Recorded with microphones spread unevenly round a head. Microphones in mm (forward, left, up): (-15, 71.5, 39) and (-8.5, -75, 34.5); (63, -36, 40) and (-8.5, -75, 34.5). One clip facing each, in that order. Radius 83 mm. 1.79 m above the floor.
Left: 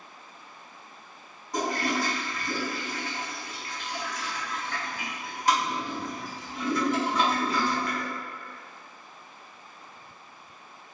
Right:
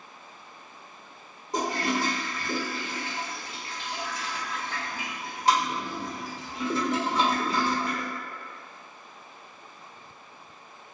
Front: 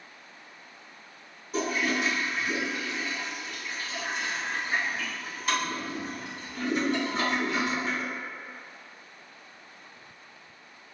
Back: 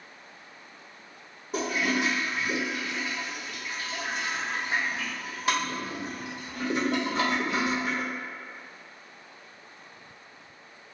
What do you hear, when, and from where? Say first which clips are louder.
1.5 s a toilet flushing: even, even; 150° right, 0.9 m